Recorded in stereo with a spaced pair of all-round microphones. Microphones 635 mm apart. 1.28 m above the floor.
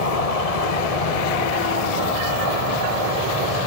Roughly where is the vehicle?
Left.